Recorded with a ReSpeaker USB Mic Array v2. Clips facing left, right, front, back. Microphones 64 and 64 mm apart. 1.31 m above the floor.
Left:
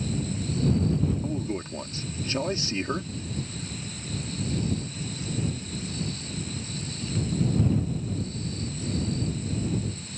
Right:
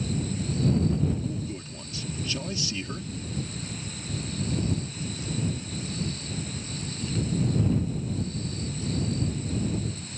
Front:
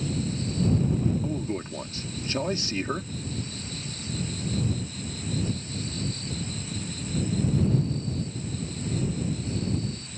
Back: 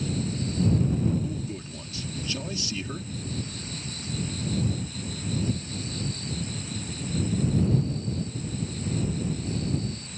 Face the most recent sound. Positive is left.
turn(degrees=45)